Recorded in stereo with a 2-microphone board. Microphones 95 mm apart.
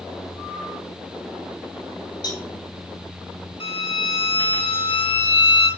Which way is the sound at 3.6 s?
70° left (ahead or behind).